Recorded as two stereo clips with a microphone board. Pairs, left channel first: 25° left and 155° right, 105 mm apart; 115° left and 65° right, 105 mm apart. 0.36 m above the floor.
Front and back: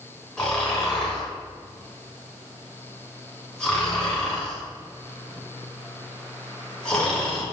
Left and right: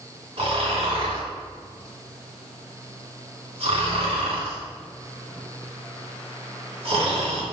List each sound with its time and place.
0.4 s snoring: 55° right, 3 m